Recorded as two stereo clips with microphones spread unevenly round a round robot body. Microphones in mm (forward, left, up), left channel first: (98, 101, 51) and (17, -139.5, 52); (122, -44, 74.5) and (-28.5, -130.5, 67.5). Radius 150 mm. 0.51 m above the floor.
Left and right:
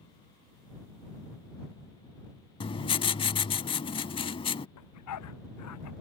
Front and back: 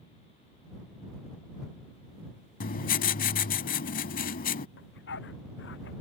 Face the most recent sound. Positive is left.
turn(degrees=60)